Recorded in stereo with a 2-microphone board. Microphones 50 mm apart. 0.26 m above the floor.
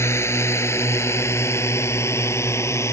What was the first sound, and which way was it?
A drone, 70° left (ahead or behind).